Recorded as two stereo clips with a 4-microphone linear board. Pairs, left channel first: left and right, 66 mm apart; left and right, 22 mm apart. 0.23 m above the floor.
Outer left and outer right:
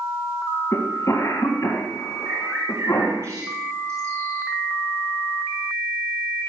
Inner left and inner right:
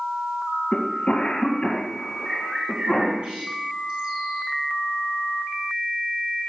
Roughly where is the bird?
Right.